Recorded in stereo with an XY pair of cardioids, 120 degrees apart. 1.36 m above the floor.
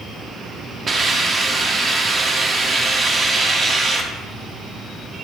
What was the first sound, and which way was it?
A hiss, 35° right.